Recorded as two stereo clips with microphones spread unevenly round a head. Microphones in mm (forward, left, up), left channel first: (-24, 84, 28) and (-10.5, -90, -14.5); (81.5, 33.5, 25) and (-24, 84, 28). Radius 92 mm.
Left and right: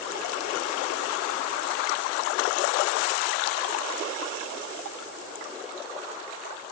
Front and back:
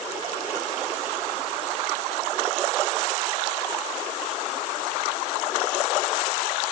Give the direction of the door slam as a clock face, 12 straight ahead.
I don't hear a door slam.